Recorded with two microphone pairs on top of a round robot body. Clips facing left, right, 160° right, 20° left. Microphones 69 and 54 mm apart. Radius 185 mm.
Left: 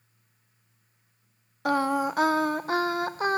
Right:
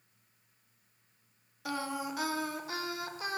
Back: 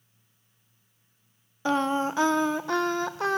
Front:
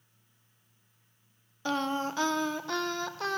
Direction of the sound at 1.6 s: 130° left.